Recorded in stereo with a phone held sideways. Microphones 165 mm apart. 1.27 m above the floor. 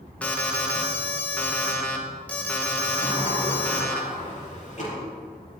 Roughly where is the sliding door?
Left.